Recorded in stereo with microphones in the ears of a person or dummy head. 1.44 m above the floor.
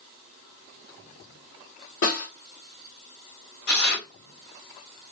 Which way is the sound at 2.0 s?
70° left (ahead or behind).